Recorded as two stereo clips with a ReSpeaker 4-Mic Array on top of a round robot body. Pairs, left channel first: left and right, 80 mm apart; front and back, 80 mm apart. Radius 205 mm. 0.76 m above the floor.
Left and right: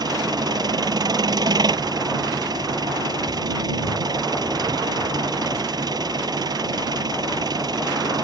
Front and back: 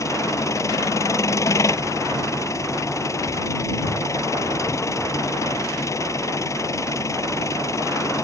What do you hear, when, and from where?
0.0 s an engine running: 55° right